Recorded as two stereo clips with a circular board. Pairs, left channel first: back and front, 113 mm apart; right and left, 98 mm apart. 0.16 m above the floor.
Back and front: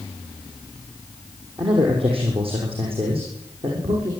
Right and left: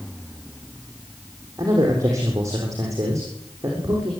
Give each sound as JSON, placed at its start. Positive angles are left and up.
{"t": 1.6, "sound": "a man speaking", "azimuth_deg": 35, "distance_m": 5.5}